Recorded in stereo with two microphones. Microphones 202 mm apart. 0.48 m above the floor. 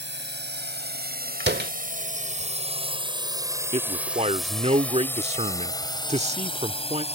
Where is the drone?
65° right (ahead or behind); by 7.2 s 30° left (ahead or behind).